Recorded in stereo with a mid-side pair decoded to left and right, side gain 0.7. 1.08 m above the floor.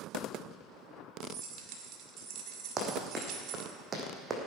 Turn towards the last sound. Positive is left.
turn(degrees=-30)